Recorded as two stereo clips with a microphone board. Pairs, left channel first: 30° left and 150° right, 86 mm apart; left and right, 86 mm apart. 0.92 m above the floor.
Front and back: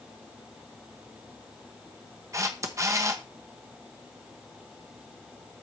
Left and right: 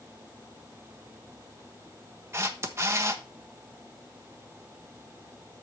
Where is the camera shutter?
130° right, 1.1 m.